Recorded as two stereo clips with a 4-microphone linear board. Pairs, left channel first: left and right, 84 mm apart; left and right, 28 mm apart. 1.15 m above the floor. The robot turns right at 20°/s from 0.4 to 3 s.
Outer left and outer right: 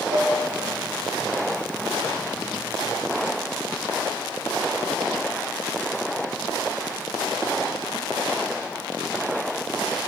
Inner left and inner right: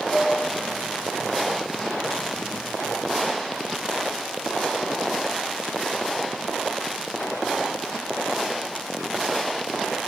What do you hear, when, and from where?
0.1 s dishes clattering: 85° right, 3 m